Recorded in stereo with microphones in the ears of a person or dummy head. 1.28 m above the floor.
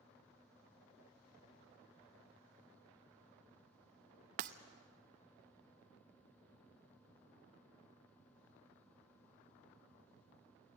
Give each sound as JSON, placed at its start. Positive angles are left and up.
{"t": 4.4, "sound": "breaking glass", "side_deg": -45, "distance_m": 0.7}